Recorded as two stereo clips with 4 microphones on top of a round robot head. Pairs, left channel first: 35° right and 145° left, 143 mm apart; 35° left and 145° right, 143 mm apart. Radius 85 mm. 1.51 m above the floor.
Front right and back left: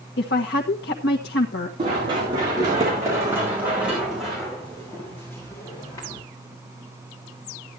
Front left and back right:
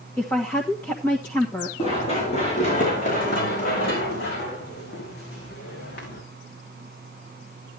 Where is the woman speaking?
40° right, 1.5 m.